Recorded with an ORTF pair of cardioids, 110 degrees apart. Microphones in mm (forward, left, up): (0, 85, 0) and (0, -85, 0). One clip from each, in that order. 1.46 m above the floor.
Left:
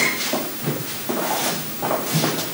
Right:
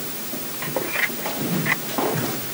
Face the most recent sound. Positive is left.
No sound to turn to.